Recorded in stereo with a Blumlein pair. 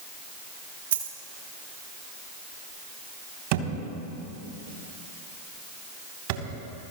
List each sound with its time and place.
0.9 s a dropped coin: 60° right, 2.5 m
3.5 s a thud: 45° right, 3 m